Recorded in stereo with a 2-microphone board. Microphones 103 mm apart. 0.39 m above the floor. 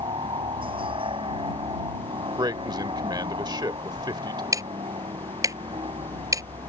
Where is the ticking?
35° right (ahead or behind).